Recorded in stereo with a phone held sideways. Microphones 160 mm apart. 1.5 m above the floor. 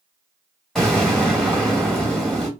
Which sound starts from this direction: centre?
An explosion, at 0.8 s.